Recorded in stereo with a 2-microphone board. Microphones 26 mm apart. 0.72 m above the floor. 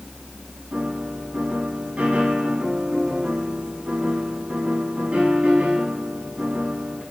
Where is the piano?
60° right (ahead or behind), 6 m.